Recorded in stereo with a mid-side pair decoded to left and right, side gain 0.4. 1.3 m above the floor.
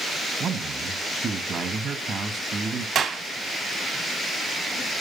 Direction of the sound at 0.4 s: 65° right.